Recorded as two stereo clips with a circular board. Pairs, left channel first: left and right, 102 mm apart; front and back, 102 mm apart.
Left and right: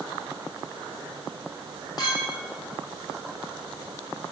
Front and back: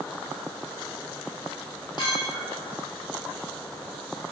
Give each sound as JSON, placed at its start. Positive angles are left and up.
{"t": 2.0, "sound": "a clink", "azimuth_deg": 45, "distance_m": 3.5}